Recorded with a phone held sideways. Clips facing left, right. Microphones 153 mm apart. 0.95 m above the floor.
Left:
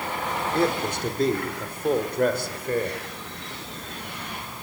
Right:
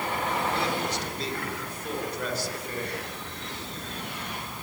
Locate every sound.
0.5 s a man speaking: 50° left (ahead or behind), 3 m; by 3.0 s 55° left (ahead or behind), 4 m